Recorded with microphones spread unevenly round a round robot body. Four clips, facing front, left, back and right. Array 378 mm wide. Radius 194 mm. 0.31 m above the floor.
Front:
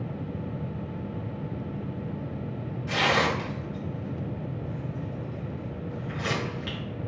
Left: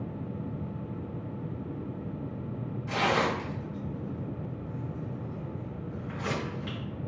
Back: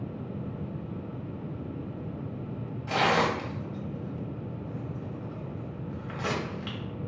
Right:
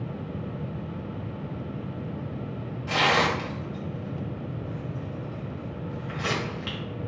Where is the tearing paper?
170° right, 0.9 m.